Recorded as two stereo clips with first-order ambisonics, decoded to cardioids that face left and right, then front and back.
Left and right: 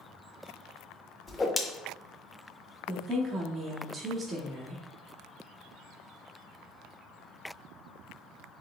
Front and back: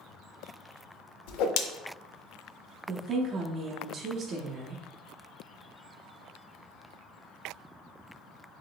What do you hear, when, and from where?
1.3 s a whoosh: 10° left, 0.5 m
2.9 s a woman speaking: 155° right, 0.6 m